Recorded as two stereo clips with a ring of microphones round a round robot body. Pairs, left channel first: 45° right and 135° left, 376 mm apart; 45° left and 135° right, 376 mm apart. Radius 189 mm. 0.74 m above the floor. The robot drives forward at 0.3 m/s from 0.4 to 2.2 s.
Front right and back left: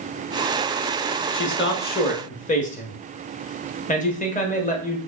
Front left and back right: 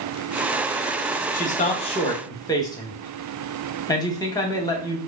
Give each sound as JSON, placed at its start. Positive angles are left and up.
{"t": 1.3, "sound": "a man speaking", "azimuth_deg": -10, "distance_m": 0.9}